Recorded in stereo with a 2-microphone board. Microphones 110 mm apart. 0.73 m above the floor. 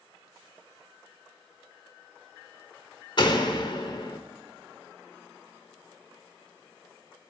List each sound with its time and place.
3.2 s a door slam: 50° left (ahead or behind), 1.3 m